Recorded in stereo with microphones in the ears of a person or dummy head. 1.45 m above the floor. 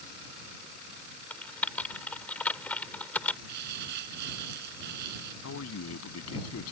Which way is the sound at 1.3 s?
5° left (ahead or behind).